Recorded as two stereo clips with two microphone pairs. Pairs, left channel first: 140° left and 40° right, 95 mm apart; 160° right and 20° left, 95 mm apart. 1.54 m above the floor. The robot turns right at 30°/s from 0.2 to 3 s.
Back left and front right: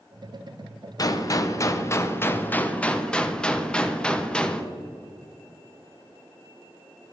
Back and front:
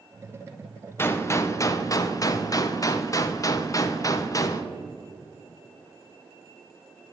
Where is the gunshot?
155° left, 0.5 m; by 4.7 s 145° right, 0.5 m.